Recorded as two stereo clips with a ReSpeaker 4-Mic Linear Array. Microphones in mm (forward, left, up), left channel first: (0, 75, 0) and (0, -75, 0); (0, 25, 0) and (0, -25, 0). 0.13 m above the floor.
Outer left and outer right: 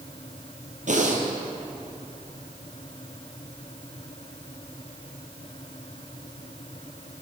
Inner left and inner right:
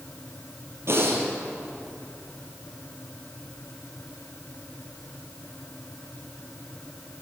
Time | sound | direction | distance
0.9 | breathing | 60° right (ahead or behind) | 2.5 m